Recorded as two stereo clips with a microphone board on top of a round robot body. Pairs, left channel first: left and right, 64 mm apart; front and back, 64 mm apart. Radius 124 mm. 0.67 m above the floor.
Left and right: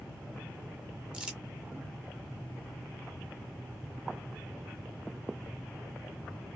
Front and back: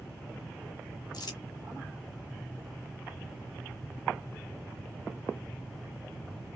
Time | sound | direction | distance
1.1 | crumpling | 15° right | 1.1 m